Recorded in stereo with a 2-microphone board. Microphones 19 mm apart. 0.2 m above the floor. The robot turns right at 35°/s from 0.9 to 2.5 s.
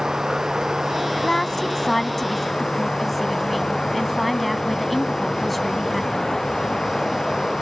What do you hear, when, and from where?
0.0 s running water: 35° right; by 7.6 s 20° left
1.1 s a woman speaking: 125° left; by 6.3 s 175° left